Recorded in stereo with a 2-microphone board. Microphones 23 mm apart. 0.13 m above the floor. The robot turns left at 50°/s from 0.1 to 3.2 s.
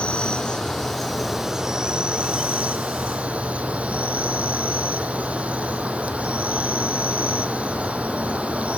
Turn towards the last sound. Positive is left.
turn(degrees=-95)